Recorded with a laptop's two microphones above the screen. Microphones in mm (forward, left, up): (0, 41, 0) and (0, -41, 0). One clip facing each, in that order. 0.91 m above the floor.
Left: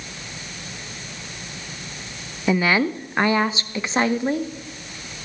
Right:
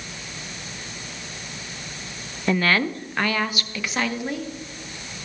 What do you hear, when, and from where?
2.5 s a woman speaking: 5° left (ahead or behind), 0.5 m; by 4.5 s 30° left (ahead or behind), 1.4 m